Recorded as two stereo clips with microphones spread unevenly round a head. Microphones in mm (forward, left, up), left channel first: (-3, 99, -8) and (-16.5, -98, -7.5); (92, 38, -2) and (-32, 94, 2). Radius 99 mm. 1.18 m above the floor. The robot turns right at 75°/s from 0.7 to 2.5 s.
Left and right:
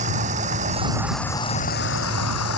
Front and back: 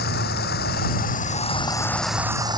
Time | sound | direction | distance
0.0 | running water | 40° right | ?